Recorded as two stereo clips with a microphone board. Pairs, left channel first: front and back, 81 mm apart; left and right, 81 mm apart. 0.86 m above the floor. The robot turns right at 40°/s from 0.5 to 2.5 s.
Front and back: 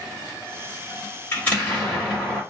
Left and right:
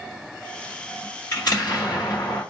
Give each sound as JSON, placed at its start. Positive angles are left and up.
{"t": 1.3, "sound": "an explosion", "azimuth_deg": 60, "distance_m": 1.7}